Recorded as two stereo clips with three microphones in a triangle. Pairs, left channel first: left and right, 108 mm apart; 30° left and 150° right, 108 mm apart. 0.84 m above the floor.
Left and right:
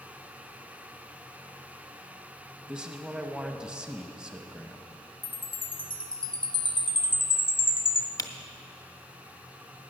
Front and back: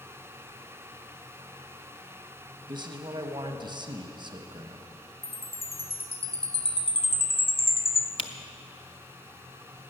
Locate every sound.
2.7 s a man speaking: 170° right, 0.9 m
5.2 s a chime: 55° left, 0.6 m
8.2 s a camera shutter: 40° left, 0.6 m